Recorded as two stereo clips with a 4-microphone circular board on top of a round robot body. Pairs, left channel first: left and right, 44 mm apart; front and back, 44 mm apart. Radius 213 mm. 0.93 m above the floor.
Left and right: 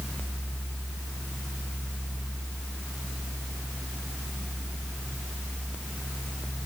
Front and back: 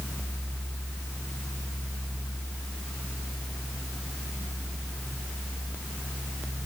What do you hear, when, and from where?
Only background noise.